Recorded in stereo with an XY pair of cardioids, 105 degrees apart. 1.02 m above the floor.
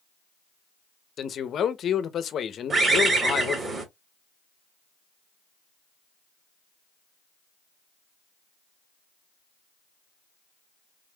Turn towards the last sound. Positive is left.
turn(degrees=-35)